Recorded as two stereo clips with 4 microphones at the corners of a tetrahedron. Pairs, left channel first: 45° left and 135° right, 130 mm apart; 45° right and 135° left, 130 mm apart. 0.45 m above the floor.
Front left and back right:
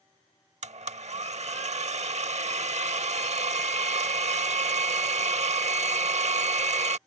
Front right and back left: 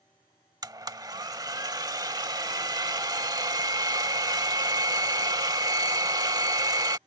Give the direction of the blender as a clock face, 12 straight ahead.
6 o'clock.